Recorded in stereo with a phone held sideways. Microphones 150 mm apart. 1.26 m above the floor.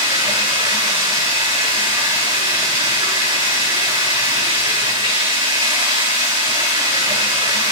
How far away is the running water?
About 6.5 m.